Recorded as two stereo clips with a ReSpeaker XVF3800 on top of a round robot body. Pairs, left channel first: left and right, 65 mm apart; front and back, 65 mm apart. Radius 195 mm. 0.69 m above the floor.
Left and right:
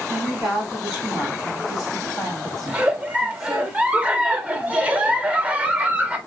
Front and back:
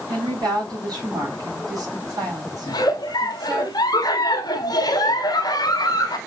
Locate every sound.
0.1 s a woman speaking: 170° right, 3 m
2.7 s a giggle: 15° right, 0.9 m